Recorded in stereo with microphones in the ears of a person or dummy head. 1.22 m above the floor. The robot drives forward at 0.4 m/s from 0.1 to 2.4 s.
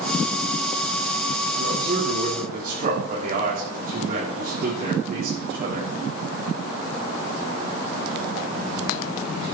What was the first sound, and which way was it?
A man speaking, 50° right (ahead or behind).